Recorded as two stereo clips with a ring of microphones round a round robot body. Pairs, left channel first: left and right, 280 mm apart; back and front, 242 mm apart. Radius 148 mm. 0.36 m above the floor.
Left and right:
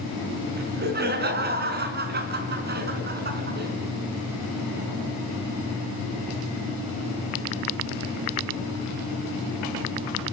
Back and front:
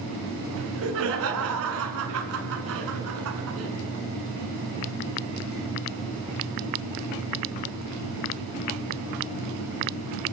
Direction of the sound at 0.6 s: 35° right.